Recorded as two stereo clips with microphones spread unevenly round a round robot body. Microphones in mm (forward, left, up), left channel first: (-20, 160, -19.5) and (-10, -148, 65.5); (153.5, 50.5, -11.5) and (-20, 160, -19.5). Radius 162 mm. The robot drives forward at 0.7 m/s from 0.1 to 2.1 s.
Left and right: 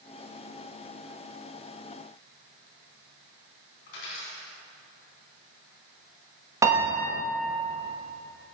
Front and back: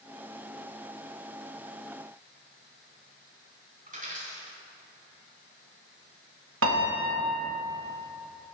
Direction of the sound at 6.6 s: 175° right.